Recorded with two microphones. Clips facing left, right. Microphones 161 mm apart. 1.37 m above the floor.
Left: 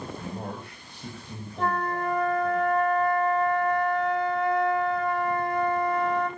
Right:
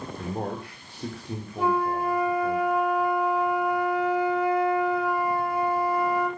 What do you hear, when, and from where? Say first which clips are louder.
0.2 s a man speaking: right 4 dB; 70° right (ahead or behind), 3.5 m
1.6 s a flute: right 3 dB; 10° right (ahead or behind), 2.0 m